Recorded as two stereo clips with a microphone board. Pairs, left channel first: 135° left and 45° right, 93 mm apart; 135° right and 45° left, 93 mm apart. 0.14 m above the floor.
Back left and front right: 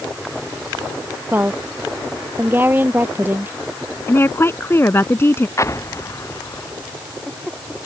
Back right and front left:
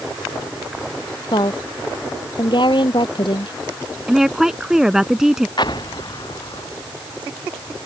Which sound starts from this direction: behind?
An explosion, at 5.6 s.